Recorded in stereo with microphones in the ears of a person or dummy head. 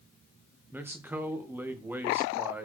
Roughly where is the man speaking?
Centre.